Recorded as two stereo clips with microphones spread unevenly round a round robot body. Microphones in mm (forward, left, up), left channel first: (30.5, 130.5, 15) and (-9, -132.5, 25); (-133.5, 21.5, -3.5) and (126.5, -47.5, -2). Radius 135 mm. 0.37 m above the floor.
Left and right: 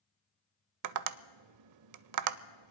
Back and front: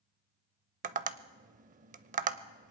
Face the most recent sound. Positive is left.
turn(degrees=-80)